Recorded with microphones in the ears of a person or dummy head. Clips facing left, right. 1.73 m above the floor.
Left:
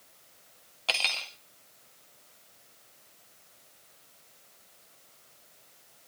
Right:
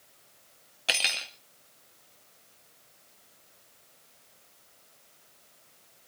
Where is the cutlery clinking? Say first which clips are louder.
Even; 15° right (ahead or behind), 1.8 m.